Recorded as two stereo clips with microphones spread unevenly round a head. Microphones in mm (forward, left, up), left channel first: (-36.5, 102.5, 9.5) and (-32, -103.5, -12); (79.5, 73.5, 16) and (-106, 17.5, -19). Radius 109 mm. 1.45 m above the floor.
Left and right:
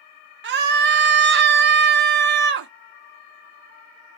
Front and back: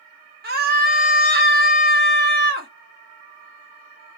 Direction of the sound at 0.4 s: 120° right.